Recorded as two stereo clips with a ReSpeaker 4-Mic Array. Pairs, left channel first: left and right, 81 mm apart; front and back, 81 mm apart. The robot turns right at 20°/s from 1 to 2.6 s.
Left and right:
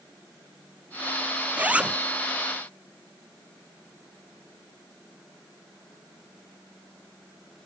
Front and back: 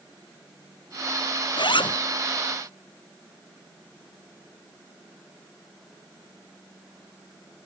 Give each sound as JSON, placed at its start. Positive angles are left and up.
{"t": 1.6, "sound": "a zipper", "azimuth_deg": -20}